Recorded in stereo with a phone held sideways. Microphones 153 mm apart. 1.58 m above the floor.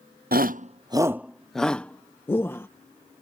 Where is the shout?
75° right (ahead or behind); by 2.7 s 15° left (ahead or behind).